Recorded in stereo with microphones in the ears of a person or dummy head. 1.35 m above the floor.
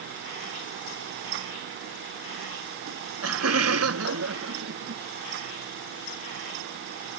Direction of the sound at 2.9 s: 90° right.